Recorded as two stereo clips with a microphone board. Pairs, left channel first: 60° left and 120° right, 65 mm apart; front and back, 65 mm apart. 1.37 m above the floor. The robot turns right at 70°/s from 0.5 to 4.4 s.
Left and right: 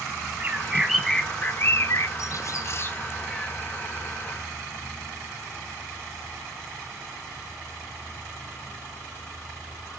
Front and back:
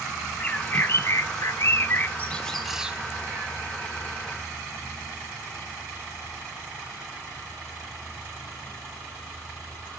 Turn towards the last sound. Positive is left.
turn(degrees=-145)